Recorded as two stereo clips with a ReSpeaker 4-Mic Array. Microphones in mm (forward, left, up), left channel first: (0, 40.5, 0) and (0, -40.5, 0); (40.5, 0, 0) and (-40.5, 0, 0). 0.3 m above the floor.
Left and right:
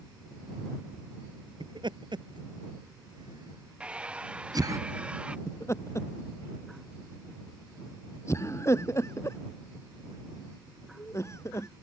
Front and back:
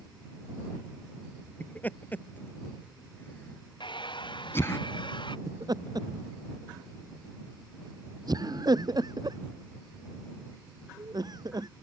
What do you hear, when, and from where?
1.6 s laughter: 70° right; by 4.8 s 55° right
3.8 s a hair dryer: 15° right
5.5 s laughter: 145° left